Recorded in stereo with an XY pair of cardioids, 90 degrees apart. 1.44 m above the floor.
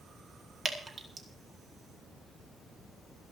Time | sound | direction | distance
0.7 | dripping | 40° right | 2.5 m